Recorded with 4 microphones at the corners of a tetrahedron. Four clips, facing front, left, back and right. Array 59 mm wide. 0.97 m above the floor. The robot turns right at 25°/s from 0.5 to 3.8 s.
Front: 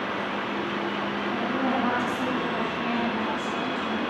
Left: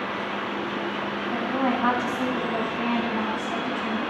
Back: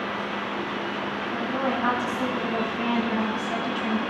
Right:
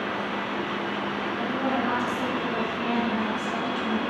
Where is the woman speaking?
105° left, 9 m; by 4.0 s 170° left, 9 m.